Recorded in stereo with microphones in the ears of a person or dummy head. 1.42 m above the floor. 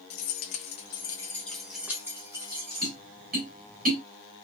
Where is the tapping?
50° right (ahead or behind), 1.6 m.